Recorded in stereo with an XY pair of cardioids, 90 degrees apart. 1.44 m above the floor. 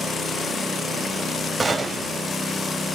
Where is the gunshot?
30° right, 4 m.